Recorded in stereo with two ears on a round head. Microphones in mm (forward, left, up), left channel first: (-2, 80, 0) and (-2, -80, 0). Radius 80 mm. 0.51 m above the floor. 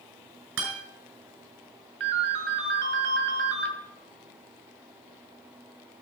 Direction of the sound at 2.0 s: 65° right (ahead or behind).